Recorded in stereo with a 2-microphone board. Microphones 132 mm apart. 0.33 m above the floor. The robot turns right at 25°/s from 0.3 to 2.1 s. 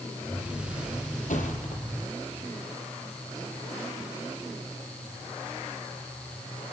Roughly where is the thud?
Left.